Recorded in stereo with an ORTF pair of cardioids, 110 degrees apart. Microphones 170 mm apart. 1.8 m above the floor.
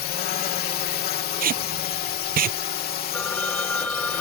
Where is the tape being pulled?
60° right.